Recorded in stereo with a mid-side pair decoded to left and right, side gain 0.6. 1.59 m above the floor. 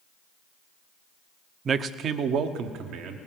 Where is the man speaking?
30° right, 0.6 m; by 3.2 s 70° right, 1.6 m.